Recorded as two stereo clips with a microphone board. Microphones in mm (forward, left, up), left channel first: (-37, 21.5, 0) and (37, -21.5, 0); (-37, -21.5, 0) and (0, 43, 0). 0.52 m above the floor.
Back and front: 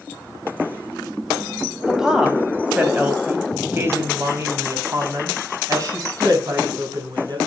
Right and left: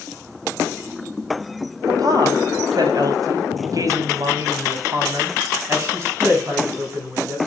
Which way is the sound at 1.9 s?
55° left.